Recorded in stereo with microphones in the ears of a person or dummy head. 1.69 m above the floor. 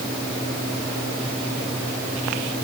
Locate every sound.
Only background noise.